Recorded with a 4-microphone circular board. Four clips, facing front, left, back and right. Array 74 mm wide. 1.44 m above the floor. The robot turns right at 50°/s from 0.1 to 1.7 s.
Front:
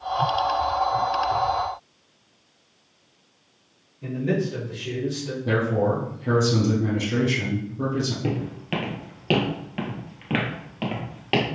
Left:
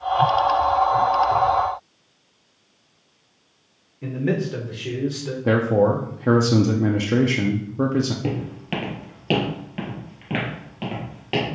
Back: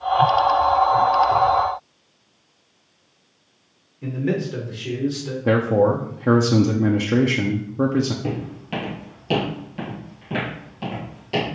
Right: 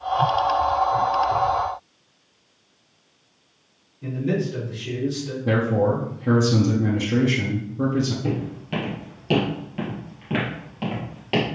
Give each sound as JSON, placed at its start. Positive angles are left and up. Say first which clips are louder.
{"t": 4.0, "sound": "a man speaking", "louder": "left 1 dB, back 1 dB", "azimuth_deg": 110, "distance_m": 1.5}
{"t": 5.5, "sound": "a man speaking", "louder": "left 3 dB, back 5 dB", "azimuth_deg": 140, "distance_m": 0.6}
{"t": 8.2, "sound": "footsteps", "louder": "even, even", "azimuth_deg": 70, "distance_m": 2.0}